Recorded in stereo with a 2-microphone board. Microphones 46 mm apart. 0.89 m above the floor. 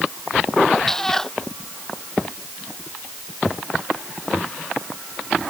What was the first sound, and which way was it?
A cat meowing, 10° left (ahead or behind).